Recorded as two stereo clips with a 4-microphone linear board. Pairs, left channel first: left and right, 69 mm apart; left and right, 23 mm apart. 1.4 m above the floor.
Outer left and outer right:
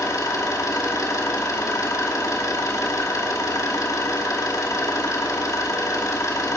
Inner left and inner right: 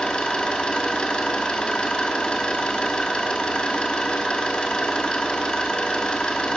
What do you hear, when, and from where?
0.0 s an engine running: 50° left (ahead or behind), 2 m